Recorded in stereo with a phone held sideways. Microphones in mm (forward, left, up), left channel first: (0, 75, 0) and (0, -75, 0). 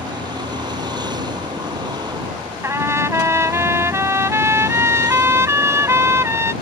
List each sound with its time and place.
0.0 s a vehicle: 30° right (ahead or behind)
2.6 s a trumpet: 15° right (ahead or behind)